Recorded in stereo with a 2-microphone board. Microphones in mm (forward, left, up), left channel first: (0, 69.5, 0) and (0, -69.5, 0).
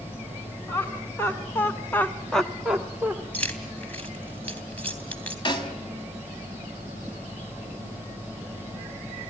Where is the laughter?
15° left (ahead or behind), 2.5 m; by 3.2 s 10° right (ahead or behind), 1.6 m.